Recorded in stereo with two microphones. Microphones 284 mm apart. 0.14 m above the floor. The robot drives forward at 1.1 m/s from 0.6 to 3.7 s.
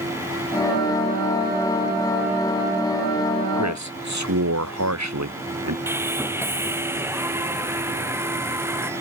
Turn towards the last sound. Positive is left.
turn(degrees=-10)  # may be behind; listen again after turning